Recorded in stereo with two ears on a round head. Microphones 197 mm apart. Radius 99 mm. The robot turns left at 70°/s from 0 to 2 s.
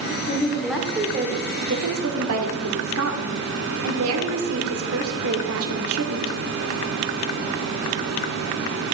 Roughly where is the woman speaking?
Ahead left.